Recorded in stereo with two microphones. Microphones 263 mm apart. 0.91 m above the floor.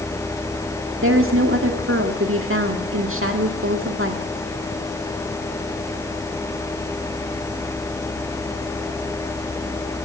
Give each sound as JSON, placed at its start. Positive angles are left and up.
{"t": 1.0, "sound": "a woman speaking", "side_deg": -55, "distance_m": 1.8}